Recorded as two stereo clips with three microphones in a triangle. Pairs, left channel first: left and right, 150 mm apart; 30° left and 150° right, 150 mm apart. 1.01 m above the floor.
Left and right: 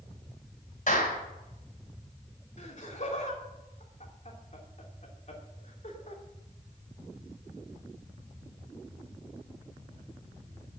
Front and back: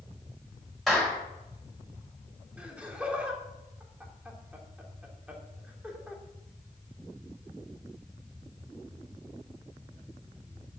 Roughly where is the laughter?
Behind left.